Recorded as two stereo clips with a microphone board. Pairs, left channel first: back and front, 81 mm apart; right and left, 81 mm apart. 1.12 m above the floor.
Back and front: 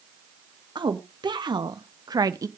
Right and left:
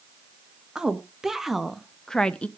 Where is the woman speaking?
10° left, 1.4 m; by 2.5 s 20° right, 0.6 m.